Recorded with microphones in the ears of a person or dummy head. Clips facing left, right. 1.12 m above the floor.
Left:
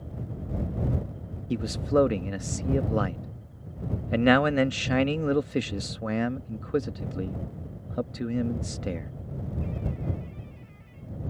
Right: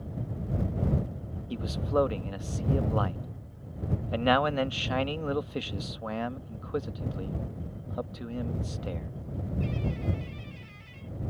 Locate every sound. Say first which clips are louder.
1.5 s a man speaking: left 4 dB; 30° left (ahead or behind)